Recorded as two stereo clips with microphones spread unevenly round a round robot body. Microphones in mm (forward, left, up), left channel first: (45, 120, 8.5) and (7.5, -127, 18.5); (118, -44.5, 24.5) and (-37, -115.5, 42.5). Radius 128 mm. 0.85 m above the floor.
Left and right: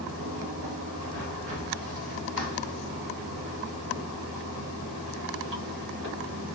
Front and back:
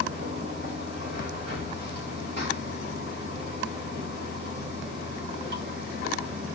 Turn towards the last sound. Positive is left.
turn(degrees=-145)